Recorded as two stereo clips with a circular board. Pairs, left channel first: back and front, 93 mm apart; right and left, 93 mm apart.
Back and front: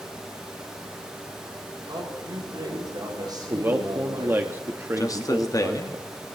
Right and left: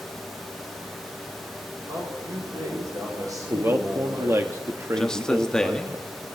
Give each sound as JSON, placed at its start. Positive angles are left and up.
{"t": 1.9, "sound": "a man speaking", "azimuth_deg": 40, "distance_m": 9.0}
{"t": 3.5, "sound": "a man speaking", "azimuth_deg": 50, "distance_m": 0.9}
{"t": 5.0, "sound": "a man speaking", "azimuth_deg": -170, "distance_m": 1.1}